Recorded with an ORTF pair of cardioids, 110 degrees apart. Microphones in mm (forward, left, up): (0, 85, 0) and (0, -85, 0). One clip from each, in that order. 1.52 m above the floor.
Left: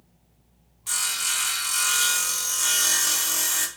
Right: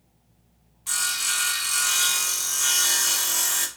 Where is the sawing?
Straight ahead, 0.5 m.